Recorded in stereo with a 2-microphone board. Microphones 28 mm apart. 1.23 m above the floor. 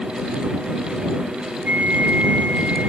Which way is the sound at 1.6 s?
85° right.